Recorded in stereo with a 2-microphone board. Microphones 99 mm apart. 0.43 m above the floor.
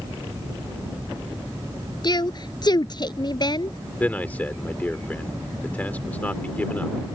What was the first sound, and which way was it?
A woman speaking, 40° left (ahead or behind).